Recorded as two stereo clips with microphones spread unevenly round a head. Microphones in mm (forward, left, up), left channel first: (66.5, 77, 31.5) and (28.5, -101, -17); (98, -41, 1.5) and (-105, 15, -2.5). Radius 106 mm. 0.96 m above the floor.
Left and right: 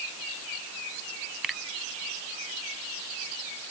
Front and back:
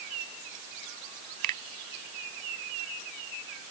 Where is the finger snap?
165° left.